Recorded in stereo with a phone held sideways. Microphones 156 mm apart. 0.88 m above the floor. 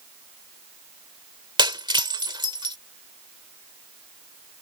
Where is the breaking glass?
30° right (ahead or behind).